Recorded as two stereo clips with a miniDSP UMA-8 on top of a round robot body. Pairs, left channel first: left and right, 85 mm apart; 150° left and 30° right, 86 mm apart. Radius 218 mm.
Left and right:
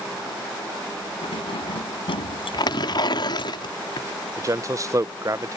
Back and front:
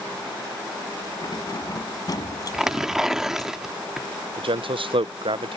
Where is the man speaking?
40° right.